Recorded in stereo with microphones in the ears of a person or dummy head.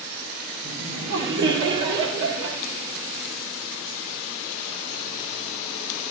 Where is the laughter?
70° right (ahead or behind), 3.5 m.